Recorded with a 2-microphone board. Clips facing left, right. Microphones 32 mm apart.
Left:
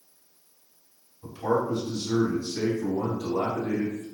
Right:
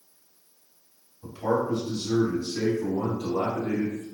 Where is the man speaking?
10° right (ahead or behind), 1.7 m; by 4.0 s 35° right (ahead or behind), 1.9 m.